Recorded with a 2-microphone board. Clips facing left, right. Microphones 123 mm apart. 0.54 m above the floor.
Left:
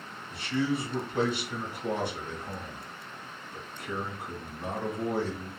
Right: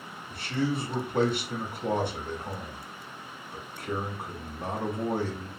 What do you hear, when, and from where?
0.3 s a man speaking: 50° right (ahead or behind), 1.2 m